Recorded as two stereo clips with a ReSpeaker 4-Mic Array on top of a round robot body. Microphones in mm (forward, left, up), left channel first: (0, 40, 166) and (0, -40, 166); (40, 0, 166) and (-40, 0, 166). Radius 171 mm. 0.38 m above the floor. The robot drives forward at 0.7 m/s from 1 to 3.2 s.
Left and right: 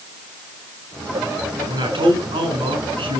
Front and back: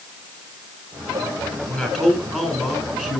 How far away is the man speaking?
About 7 m.